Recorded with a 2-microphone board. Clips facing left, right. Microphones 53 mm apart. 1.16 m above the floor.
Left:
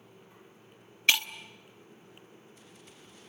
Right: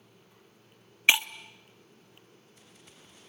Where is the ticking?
I don't hear ticking.